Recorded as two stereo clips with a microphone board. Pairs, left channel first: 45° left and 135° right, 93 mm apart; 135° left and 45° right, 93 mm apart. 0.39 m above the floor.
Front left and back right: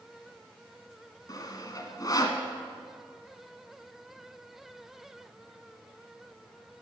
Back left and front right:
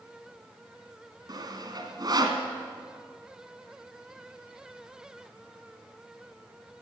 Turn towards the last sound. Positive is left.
turn(degrees=-5)